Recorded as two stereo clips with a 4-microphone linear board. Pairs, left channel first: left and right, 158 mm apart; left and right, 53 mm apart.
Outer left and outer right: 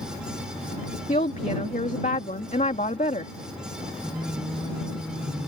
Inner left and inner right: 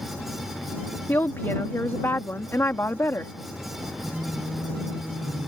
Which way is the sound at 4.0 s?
Centre (ahead or behind).